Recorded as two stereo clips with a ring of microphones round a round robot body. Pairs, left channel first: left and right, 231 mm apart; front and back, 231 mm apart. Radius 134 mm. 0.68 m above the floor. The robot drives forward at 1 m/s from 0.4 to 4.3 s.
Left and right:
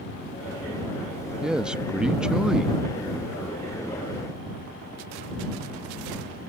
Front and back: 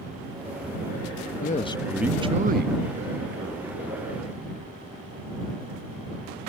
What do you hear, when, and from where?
1.4 s a man speaking: 5° right; by 4.3 s straight behind